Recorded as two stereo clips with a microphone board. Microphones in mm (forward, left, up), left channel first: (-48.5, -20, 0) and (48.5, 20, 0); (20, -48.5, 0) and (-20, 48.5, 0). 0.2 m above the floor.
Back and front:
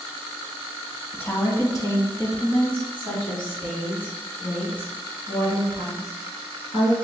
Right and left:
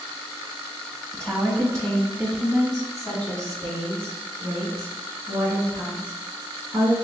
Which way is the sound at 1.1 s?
140° right.